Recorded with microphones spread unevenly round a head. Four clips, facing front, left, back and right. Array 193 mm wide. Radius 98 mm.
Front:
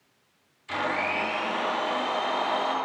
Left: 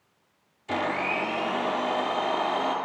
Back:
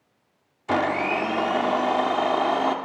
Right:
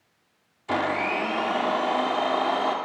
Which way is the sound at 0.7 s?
165° right.